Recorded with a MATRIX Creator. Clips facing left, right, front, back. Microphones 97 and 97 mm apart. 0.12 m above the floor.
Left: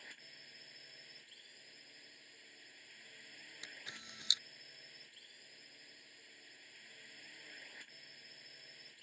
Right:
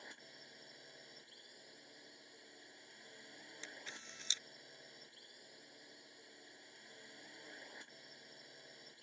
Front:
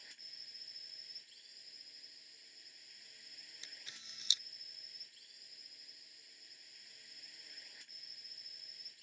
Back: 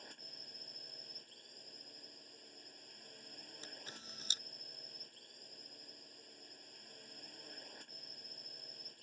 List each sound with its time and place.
0.0 s a drone: 150° right
3.6 s a camera shutter: 160° left